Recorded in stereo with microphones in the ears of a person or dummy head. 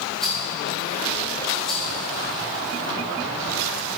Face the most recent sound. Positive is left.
turn(degrees=5)  # may be behind; listen again after turning